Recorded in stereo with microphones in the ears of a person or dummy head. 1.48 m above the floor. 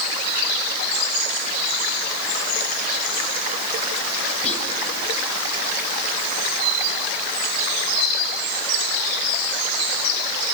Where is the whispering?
35° left (ahead or behind), 2.5 m.